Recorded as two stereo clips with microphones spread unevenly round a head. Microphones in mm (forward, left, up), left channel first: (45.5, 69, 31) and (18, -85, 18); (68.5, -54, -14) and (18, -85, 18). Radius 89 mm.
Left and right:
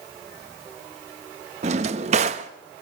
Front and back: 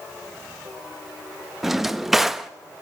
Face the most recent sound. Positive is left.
turn(degrees=-125)